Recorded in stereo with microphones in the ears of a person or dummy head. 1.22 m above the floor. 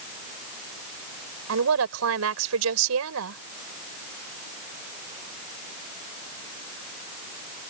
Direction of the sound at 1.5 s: 80° right.